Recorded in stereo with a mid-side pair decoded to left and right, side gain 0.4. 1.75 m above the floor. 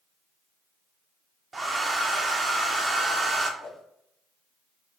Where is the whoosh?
70° left, 1.3 m.